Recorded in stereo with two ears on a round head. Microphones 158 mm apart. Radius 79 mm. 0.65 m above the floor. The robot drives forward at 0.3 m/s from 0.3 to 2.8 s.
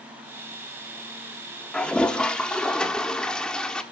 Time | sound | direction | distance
1.7 | a toilet flushing | 5° left (ahead or behind) | 1.2 m